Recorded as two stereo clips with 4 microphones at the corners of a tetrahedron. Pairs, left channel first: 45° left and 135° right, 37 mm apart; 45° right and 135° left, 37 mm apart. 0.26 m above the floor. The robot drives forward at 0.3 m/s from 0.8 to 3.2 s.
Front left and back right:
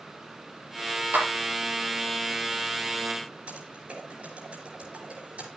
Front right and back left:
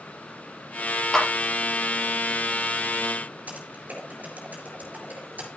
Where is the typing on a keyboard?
175° left, 4.5 m.